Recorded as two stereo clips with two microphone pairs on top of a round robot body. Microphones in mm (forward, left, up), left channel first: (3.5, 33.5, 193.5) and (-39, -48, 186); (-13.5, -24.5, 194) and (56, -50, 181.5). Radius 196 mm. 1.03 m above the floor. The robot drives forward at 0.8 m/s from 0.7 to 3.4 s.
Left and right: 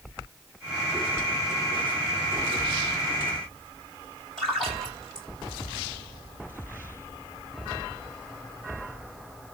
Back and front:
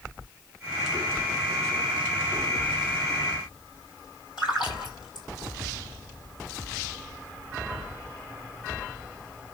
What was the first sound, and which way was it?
A splash, 145° left.